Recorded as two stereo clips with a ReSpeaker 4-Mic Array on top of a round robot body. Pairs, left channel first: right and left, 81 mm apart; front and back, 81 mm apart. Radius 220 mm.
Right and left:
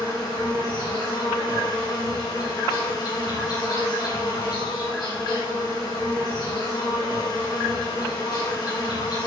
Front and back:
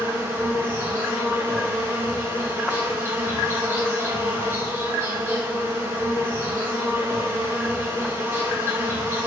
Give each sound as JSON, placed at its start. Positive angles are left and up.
{"t": 0.0, "sound": "an insect", "azimuth_deg": -125, "distance_m": 3.0}